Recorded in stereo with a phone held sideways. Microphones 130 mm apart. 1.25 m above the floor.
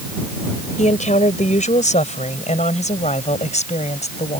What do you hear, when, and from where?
0.8 s a woman speaking: 65° left (ahead or behind); by 4.4 s 60° left (ahead or behind)